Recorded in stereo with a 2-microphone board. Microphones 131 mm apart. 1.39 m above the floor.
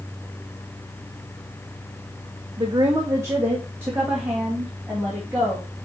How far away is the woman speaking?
About 1.0 m.